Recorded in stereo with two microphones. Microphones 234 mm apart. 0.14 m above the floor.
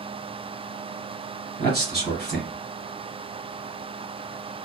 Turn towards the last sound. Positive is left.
turn(degrees=-45)  # may be behind; listen again after turning